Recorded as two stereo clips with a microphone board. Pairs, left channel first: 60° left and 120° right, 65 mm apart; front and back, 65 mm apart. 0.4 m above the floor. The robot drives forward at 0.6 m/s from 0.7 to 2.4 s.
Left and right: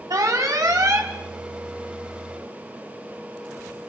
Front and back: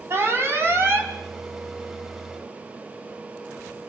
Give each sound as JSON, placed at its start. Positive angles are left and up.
{"t": 0.1, "sound": "an alarm", "azimuth_deg": -130, "distance_m": 3.5}